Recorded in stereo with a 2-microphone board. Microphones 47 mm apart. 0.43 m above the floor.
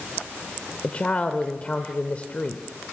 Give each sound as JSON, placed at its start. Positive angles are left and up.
{"t": 0.8, "sound": "a woman speaking", "side_deg": 25, "distance_m": 1.1}